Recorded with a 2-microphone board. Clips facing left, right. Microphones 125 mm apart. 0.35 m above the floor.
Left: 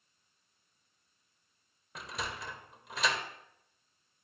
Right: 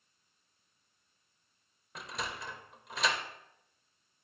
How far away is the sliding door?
About 1.0 m.